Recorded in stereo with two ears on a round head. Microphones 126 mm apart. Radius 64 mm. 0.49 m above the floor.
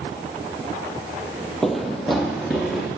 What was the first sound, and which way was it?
Running footsteps, centre (ahead or behind).